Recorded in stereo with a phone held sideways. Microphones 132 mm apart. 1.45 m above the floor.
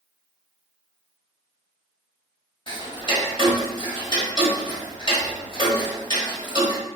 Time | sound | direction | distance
2.7 | ticking | 35° left (ahead or behind) | 1.4 m